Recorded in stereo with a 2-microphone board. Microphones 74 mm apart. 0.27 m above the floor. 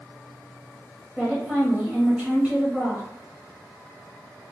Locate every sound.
1.2 s a woman speaking: 15° right (ahead or behind), 0.9 m